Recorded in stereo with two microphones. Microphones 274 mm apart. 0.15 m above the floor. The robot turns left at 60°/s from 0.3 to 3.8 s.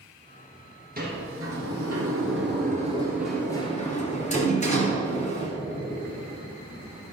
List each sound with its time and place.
1.0 s a sliding door: 35° right (ahead or behind), 2 m; by 5.5 s 25° left (ahead or behind), 2 m